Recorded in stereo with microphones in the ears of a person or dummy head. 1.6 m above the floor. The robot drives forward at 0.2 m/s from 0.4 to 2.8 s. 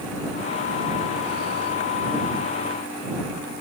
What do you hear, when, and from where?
Only background noise.